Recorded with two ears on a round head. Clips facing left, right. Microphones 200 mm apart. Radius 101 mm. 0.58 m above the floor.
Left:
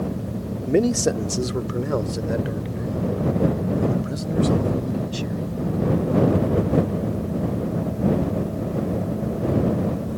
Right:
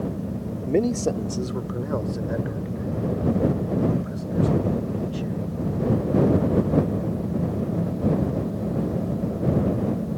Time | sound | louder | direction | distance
0.7 | a man speaking | left 3 dB | 10° left (ahead or behind) | ?